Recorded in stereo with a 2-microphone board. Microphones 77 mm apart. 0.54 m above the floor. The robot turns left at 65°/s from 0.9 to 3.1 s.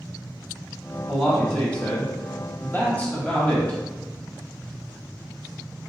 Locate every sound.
1.1 s a man speaking: 5° right (ahead or behind), 0.9 m; by 3.8 s 15° left (ahead or behind), 0.9 m